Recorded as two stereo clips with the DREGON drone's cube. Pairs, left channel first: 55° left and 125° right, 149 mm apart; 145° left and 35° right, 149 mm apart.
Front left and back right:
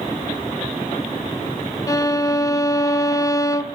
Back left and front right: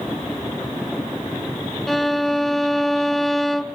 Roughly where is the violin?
Ahead left.